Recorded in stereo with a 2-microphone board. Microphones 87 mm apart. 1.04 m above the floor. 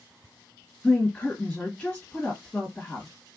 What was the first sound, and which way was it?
A woman speaking, 20° left (ahead or behind).